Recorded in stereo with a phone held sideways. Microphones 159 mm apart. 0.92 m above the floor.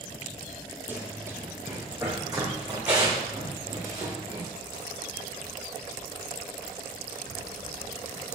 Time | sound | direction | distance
0.9 | running footsteps | 10° right (ahead or behind) | 1.8 m